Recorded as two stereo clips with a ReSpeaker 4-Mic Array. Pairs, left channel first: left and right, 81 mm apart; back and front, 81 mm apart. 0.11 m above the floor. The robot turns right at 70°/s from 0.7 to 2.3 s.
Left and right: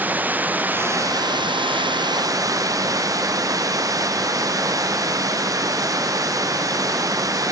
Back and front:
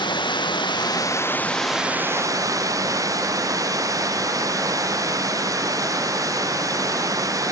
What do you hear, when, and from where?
0.0 s running water: 160° right; by 7.5 s 45° right